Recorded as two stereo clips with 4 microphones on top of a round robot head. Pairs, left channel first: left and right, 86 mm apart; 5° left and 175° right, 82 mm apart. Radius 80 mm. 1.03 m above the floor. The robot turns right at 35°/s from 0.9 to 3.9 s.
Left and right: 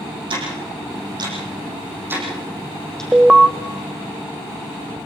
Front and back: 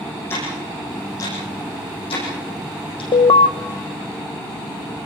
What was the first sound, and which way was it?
Ticking, 65° right.